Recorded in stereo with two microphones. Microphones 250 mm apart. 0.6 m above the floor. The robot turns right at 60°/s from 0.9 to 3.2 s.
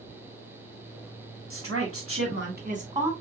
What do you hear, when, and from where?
1.5 s a woman speaking: 110° right, 2 m; by 3.1 s 15° right, 2 m